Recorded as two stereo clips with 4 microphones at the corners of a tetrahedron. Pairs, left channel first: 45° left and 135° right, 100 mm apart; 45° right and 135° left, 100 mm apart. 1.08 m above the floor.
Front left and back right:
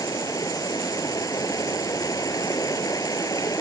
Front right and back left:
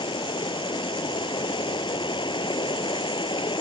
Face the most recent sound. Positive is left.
turn(degrees=-10)